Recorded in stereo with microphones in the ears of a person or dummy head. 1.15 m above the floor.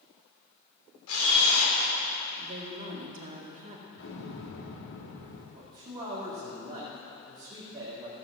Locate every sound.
1.1 s a camera shutter: 85° left, 3.5 m
2.4 s a woman speaking: 40° right (ahead or behind), 1.9 m
4.0 s an explosion: 65° left (ahead or behind), 1.9 m
5.5 s a man speaking: 20° right (ahead or behind), 2 m